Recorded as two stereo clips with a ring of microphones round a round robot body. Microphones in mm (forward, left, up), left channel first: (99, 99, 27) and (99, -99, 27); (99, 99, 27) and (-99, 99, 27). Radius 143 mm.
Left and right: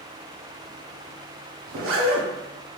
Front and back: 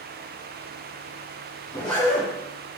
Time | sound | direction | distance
1.7 | a zipper | 75° right | 0.6 m